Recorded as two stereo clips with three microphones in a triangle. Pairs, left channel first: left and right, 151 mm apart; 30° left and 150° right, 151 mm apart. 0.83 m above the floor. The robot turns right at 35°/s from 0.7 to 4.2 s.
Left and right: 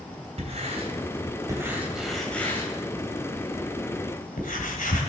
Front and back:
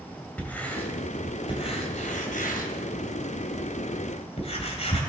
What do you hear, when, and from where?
0.4 s writing: 50° right, 2.5 m; by 5.0 s 75° left, 2.5 m